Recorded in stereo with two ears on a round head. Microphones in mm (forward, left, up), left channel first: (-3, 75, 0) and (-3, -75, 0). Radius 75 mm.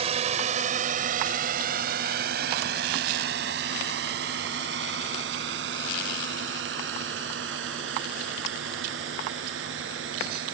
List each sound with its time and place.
0.0 s a drone: 35° right (ahead or behind); by 10.5 s 85° right